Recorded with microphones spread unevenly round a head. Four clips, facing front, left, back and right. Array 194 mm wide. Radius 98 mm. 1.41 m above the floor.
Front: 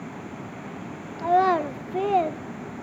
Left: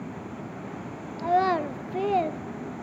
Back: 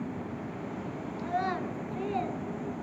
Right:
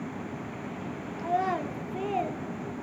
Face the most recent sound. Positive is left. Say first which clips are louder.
# left 5 dB, front 12 dB
turn(degrees=25)